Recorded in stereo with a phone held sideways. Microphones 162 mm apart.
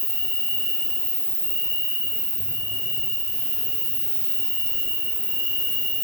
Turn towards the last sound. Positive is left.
turn(degrees=-10)  # may be behind; listen again after turning